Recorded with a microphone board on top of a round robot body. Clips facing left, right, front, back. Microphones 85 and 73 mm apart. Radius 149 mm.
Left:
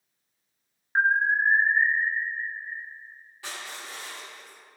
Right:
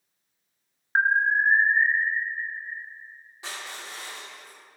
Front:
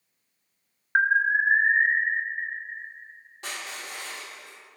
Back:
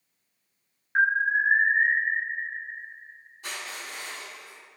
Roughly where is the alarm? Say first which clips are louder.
Right 1 dB, front 1 dB; ahead right.